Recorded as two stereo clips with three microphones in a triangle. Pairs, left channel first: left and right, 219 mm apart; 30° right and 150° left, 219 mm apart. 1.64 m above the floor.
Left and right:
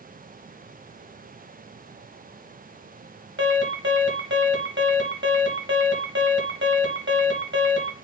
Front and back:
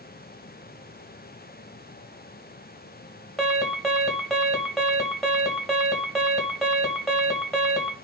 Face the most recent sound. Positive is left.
turn(degrees=-120)